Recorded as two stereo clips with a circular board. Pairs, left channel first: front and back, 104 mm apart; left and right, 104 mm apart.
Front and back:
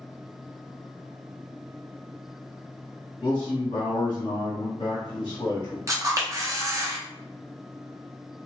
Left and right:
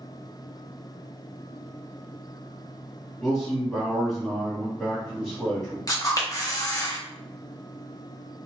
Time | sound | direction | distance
3.2 | a man speaking | 5° left | 1.8 m
5.9 | a camera shutter | 130° left | 0.7 m